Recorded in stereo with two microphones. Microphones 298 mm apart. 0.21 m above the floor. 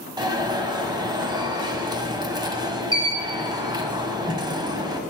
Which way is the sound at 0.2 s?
15° right (ahead or behind).